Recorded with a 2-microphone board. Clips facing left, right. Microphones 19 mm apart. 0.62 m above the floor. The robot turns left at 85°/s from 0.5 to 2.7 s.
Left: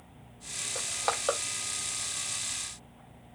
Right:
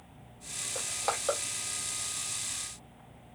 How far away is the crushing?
About 0.6 m.